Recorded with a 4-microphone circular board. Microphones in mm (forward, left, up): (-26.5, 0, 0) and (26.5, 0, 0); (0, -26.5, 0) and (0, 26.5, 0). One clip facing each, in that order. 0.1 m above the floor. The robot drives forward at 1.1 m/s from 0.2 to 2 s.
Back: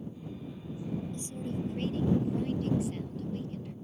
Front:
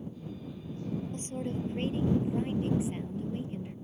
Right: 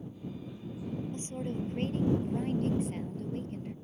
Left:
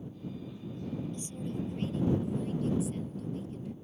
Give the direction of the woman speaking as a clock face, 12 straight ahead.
1 o'clock.